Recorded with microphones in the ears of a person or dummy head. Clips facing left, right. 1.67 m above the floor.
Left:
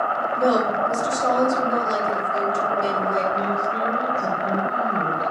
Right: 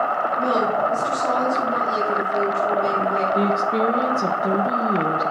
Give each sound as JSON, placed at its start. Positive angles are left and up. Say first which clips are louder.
{"t": 0.4, "sound": "a woman speaking", "louder": "left 2 dB", "side_deg": 75, "distance_m": 7.0}
{"t": 3.3, "sound": "a woman speaking", "louder": "right 4 dB", "side_deg": -50, "distance_m": 1.6}